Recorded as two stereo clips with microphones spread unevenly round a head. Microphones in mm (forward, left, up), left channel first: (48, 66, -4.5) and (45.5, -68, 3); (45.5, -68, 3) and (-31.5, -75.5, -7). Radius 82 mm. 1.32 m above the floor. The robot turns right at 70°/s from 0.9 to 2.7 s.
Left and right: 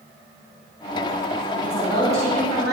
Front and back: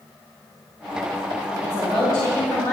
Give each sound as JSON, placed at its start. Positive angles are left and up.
{"t": 1.6, "sound": "a woman speaking", "azimuth_deg": 10, "distance_m": 3.5}